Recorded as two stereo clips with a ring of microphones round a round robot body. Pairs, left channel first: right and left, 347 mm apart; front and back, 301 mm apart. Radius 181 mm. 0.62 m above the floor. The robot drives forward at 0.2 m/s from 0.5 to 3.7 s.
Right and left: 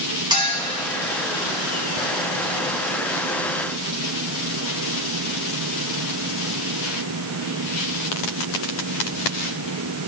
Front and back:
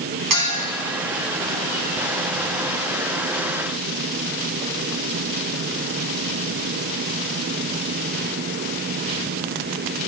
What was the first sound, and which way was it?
A clink, 170° left.